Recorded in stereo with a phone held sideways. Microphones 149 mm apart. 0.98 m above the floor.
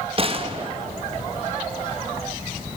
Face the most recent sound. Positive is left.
turn(degrees=-40)  # may be behind; listen again after turning